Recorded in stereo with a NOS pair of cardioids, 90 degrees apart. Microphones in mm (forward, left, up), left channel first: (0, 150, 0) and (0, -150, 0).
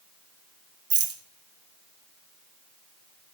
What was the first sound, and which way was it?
A rattle, 50° right.